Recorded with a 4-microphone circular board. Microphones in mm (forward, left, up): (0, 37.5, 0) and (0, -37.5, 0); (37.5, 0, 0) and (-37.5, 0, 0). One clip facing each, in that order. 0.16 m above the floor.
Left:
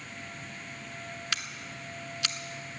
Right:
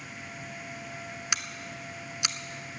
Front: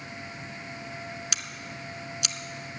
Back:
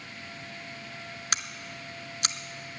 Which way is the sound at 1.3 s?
155° right.